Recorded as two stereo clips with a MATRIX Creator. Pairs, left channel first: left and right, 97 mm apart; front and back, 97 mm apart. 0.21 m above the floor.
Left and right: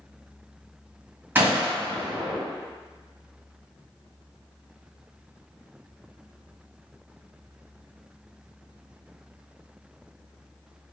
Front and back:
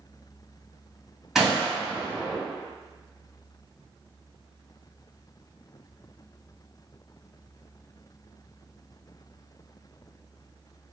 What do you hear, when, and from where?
1.4 s a gunshot: 100° right, 1.1 m